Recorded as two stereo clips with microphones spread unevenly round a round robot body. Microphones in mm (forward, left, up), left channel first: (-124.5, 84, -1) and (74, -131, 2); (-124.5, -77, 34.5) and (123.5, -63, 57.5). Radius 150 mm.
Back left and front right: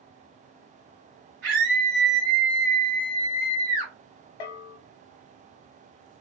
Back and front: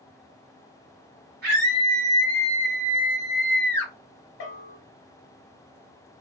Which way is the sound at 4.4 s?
130° left.